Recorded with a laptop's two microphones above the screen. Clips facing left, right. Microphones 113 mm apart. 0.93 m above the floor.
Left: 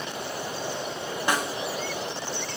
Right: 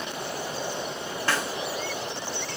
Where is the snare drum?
15° left (ahead or behind), 2 m.